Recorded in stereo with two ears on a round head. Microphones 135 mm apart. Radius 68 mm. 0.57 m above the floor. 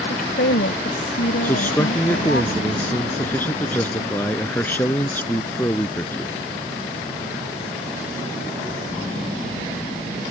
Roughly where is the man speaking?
Centre.